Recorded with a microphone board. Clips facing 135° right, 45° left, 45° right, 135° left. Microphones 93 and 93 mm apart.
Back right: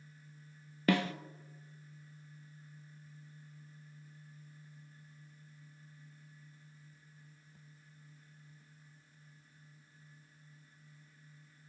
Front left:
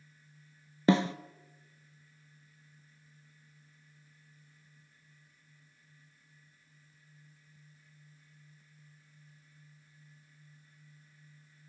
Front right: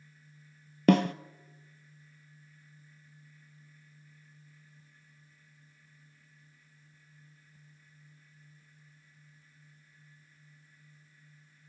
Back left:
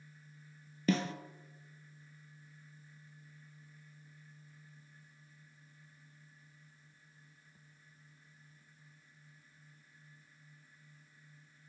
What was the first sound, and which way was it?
A snare drum, 20° right.